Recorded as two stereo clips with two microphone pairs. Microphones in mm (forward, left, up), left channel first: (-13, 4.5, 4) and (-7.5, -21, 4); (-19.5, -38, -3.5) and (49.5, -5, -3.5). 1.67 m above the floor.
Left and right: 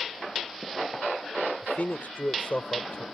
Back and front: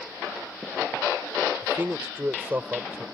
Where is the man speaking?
90° left.